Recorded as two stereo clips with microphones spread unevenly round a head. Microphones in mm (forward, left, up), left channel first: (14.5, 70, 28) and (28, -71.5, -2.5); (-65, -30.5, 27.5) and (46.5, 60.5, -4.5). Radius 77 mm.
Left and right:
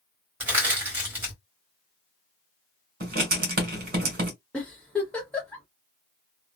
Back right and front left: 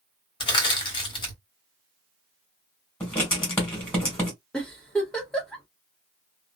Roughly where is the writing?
Right.